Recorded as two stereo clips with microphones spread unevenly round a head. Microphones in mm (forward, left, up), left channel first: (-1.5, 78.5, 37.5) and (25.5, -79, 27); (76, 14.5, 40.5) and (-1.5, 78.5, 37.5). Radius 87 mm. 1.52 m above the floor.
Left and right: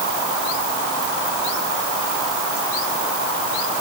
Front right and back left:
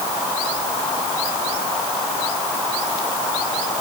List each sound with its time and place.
Only background noise.